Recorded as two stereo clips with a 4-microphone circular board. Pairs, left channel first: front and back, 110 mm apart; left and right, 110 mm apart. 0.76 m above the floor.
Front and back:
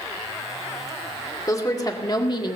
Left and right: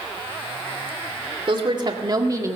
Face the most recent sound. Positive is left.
turn(degrees=-30)